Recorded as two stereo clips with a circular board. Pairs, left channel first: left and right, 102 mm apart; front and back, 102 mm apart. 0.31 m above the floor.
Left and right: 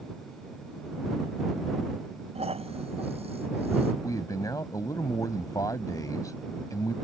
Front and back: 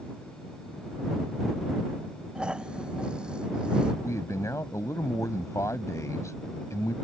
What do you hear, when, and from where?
2.4 s snoring: 100° right
4.0 s a man speaking: 50° left